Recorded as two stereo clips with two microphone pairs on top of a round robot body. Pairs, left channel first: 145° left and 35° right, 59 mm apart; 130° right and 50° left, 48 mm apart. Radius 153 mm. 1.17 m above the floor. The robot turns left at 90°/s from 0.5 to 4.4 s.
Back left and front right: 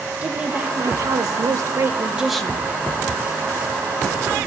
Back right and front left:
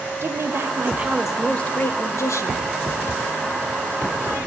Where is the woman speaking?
40° left, 1.1 m; by 2.6 s 155° right, 1.1 m.